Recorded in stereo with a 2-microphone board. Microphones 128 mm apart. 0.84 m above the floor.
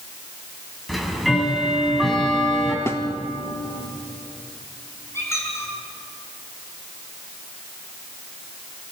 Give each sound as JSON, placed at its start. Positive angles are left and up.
{"t": 0.9, "sound": "ticking", "side_deg": 0, "distance_m": 4.0}
{"t": 2.9, "sound": "a snare drum", "side_deg": 20, "distance_m": 1.5}
{"t": 5.1, "sound": "a squeak", "side_deg": 20, "distance_m": 6.5}